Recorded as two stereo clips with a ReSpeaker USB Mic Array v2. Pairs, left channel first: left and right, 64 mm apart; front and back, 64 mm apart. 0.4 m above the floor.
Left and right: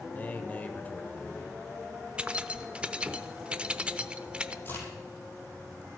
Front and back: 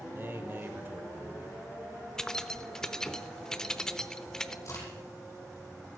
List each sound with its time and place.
0.1 s a man speaking: 140° left, 1.2 m
2.2 s keys jangling: 60° right, 0.5 m
4.7 s a crack: 40° left, 5 m